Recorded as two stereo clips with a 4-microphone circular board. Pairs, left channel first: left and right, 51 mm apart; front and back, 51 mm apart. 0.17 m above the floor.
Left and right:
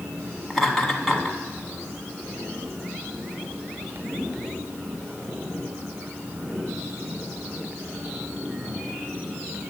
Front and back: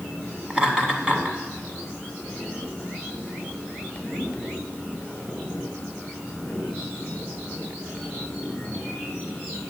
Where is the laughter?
175° left, 1.4 m.